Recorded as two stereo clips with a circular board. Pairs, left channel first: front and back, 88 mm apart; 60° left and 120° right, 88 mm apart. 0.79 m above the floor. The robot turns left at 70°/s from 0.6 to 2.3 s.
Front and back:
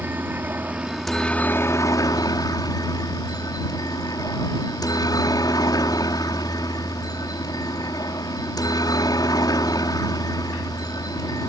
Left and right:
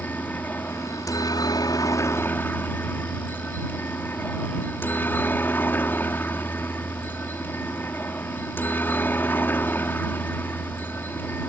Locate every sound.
0.0 s a helicopter: 120° left; by 11.5 s straight ahead